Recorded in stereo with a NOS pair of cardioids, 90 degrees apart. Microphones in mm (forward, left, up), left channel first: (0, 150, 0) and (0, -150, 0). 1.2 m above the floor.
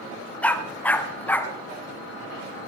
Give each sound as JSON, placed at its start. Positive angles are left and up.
{"t": 0.4, "sound": "a dog barking", "azimuth_deg": 5, "distance_m": 2.0}